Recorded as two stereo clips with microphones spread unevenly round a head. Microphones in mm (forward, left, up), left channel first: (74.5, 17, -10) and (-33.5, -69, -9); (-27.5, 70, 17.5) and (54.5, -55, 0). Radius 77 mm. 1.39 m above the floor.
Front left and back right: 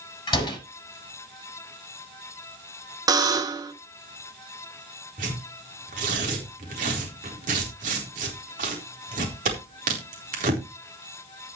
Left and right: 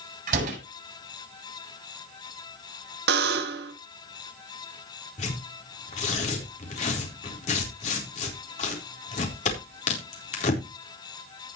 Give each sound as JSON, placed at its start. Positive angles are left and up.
{"t": 0.3, "sound": "a door slam", "azimuth_deg": -20, "distance_m": 7.5}
{"t": 3.1, "sound": "a buzzer", "azimuth_deg": -80, "distance_m": 1.4}
{"t": 5.2, "sound": "tearing paper", "azimuth_deg": 175, "distance_m": 4.0}